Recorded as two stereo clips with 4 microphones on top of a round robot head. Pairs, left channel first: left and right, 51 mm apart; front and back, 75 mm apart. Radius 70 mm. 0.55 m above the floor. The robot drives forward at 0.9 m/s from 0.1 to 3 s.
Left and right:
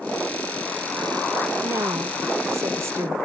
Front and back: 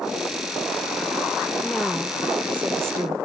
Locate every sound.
1.6 s a woman speaking: 80° right; by 3.1 s 125° right